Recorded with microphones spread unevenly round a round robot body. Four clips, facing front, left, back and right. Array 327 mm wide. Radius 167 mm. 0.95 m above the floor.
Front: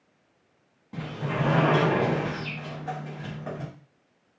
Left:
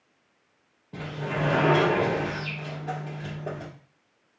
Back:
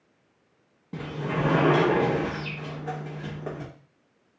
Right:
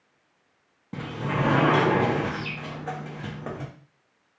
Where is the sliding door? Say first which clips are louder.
Right 2 dB, back 1 dB; 115° right, 1.6 m.